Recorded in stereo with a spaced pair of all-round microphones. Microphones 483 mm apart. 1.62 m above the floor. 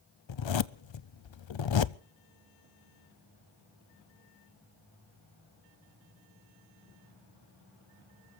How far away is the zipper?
About 0.5 m.